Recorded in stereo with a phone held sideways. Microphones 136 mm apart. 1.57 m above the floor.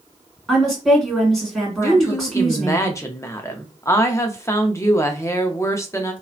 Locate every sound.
0.5 s a woman speaking: centre (ahead or behind), 1.7 m
1.8 s a woman speaking: 20° left (ahead or behind), 0.5 m